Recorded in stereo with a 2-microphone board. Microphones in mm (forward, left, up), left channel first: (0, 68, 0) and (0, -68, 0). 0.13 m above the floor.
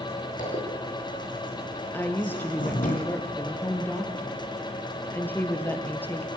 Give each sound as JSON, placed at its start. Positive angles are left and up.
{"t": 0.4, "sound": "a zipper", "side_deg": 70, "distance_m": 6.0}
{"t": 1.9, "sound": "a woman speaking", "side_deg": 15, "distance_m": 2.5}